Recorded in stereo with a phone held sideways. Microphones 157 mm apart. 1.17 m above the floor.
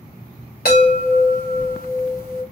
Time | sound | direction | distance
0.7 | a chime | 80° left | 1.6 m